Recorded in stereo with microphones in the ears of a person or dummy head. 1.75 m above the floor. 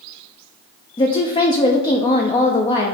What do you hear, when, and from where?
1.0 s a woman speaking: 30° left (ahead or behind), 0.7 m